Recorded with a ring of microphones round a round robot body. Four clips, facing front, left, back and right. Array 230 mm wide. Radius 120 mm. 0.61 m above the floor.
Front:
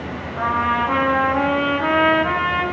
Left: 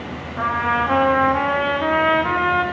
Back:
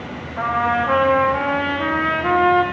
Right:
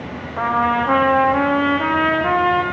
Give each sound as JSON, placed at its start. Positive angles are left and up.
{"t": 0.4, "sound": "a trumpet", "azimuth_deg": -100, "distance_m": 8.0}